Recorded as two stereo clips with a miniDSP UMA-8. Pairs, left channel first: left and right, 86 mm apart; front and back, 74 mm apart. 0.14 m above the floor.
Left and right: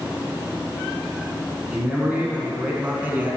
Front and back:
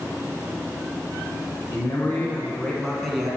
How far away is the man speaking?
About 1.4 m.